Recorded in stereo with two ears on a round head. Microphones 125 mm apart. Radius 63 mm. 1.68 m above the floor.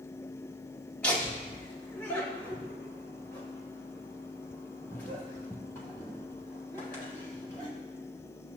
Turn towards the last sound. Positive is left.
turn(degrees=15)  # may be behind; listen again after turning